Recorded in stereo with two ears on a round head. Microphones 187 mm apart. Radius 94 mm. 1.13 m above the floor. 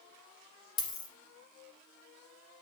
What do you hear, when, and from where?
0.8 s a dropped coin: 20° left (ahead or behind), 1.7 m